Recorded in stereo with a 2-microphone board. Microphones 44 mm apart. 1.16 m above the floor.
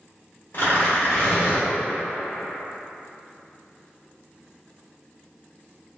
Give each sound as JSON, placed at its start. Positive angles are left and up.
{"t": 0.5, "sound": "tearing paper", "side_deg": 50, "distance_m": 1.3}